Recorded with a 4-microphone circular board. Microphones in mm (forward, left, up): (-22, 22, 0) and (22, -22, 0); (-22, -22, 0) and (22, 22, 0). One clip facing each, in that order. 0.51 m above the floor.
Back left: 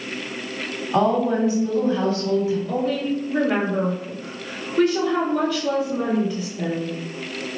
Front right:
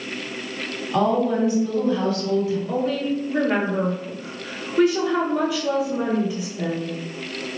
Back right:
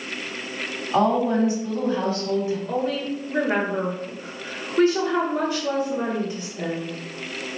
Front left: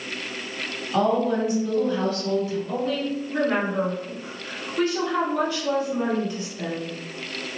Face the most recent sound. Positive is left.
turn(degrees=-120)